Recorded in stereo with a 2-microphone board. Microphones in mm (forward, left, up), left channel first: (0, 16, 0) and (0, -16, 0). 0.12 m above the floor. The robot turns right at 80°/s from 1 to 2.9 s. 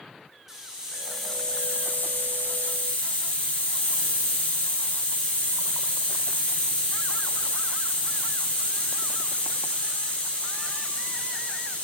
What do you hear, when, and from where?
0.5 s a hiss: 10° right, 4 m; by 11.8 s 145° left, 4 m